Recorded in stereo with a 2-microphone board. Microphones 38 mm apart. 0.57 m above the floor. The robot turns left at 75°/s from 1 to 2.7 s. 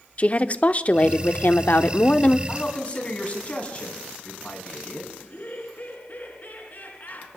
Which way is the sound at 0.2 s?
130° left.